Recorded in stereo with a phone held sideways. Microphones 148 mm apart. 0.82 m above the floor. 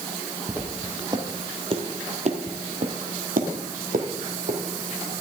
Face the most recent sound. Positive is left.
turn(degrees=-60)  # may be behind; listen again after turning